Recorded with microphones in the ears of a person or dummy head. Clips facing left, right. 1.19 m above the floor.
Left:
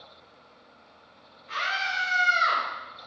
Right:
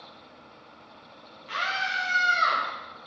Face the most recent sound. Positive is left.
turn(degrees=-75)  # may be behind; listen again after turning